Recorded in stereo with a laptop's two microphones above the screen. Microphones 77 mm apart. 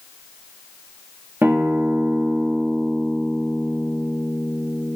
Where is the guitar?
30° right (ahead or behind), 1.4 m.